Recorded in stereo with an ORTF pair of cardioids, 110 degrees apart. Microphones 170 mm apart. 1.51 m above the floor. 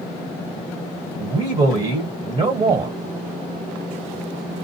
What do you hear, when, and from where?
1.2 s a man speaking: 35° right, 1.4 m